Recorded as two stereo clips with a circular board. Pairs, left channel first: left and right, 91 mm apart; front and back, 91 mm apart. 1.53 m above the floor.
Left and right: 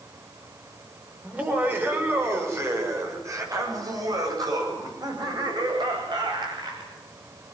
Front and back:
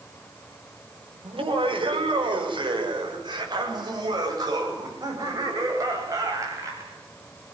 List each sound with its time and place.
1.2 s laughter: 160° right, 6.5 m; by 6.9 s 125° right, 11 m